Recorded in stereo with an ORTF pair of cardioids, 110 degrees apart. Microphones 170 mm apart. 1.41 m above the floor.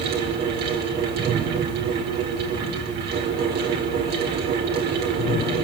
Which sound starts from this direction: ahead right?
A fan, at 0.0 s.